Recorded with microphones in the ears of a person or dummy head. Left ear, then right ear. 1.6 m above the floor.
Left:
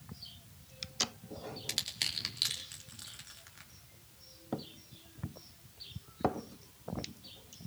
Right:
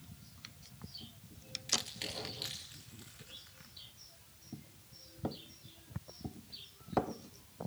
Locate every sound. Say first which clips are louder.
1.7 s crushing: left 2 dB; 30° left (ahead or behind), 3 m